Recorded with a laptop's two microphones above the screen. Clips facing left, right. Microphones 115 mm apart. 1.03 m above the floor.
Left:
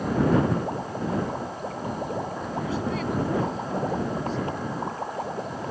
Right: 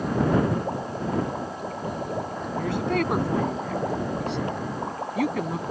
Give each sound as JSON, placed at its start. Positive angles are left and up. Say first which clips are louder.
{"t": 2.6, "sound": "a woman speaking", "louder": "right 4 dB", "side_deg": -65}